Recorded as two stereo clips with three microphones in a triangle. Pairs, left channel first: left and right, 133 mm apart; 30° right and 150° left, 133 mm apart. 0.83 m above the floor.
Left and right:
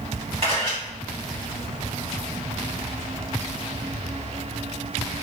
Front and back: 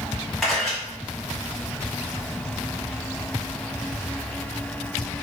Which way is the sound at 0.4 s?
120° right.